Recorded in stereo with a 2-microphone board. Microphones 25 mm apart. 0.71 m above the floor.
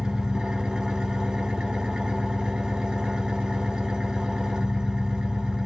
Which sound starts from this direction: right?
An engine running, at 0.0 s.